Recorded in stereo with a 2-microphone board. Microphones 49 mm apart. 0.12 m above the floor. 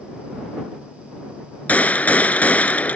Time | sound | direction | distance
1.7 | a gunshot | 35° left (ahead or behind) | ?